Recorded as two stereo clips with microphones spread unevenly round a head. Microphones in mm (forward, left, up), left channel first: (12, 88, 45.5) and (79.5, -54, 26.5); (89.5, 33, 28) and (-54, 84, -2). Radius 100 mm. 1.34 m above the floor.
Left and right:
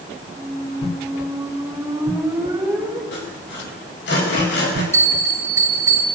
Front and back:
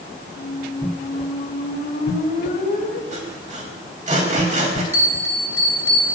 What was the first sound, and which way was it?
A squeak, 10° left.